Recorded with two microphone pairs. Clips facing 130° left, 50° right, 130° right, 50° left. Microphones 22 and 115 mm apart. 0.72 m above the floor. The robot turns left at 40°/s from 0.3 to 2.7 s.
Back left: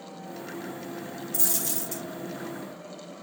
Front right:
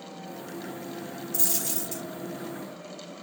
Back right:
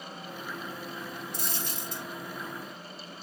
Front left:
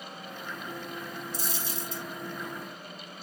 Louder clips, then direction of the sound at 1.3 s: Even, front left 1 dB; 115° right.